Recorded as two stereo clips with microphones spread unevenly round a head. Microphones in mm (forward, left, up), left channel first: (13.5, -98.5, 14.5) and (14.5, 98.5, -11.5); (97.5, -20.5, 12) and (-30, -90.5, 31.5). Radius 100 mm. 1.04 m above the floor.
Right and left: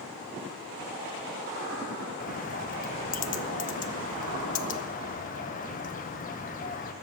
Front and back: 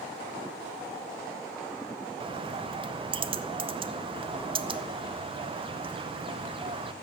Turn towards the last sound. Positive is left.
turn(degrees=-115)